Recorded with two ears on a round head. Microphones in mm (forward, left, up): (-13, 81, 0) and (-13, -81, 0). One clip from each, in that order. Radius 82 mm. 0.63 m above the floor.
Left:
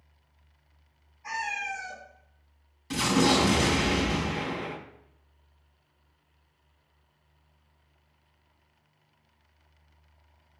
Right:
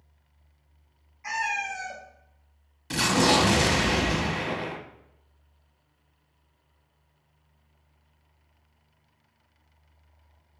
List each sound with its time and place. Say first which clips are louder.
1.2 s a cat meowing: right 3 dB; 50° right (ahead or behind), 1.1 m
2.9 s an explosion: right 2 dB; 10° right (ahead or behind), 0.7 m